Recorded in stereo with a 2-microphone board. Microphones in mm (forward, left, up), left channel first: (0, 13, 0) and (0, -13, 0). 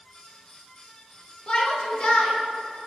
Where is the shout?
45° left (ahead or behind), 1.5 m.